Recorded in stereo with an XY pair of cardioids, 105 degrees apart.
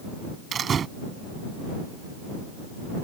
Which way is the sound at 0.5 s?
45° right.